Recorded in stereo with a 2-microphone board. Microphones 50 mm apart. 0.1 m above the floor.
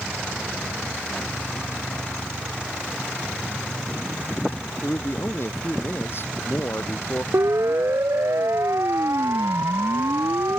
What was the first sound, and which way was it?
A man speaking, 55° left (ahead or behind).